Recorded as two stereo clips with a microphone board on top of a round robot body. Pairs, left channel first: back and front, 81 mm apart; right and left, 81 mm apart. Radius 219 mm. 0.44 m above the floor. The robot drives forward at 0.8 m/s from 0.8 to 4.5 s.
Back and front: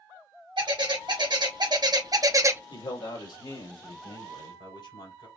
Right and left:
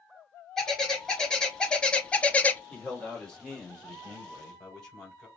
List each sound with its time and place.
0.6 s a bird: 5° right, 2.0 m; by 2.6 s 35° right, 0.8 m
2.7 s a man speaking: 170° right, 2.5 m; by 5.3 s 175° right, 4 m